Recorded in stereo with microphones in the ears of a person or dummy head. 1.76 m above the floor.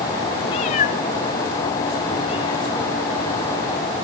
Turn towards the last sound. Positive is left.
turn(degrees=30)  # may be behind; listen again after turning